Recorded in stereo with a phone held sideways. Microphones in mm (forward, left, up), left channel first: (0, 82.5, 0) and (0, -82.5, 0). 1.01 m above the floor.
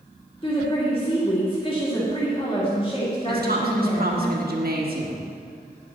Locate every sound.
0.4 s a woman speaking: 35° left (ahead or behind), 2 m
3.3 s a woman speaking: 70° right (ahead or behind), 1.5 m